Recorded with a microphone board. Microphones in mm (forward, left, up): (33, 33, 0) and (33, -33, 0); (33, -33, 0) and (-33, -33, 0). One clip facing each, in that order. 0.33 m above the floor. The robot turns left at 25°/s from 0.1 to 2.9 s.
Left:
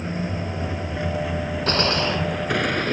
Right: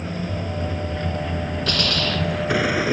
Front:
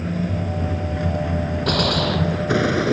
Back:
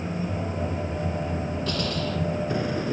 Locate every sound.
0.0 s a vehicle: 20° left; by 2.9 s 5° right
1.7 s a gunshot: 35° left; by 2.7 s 5° left